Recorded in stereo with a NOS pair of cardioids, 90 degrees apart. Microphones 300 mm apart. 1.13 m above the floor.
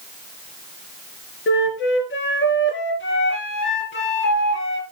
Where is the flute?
40° left, 3.5 m.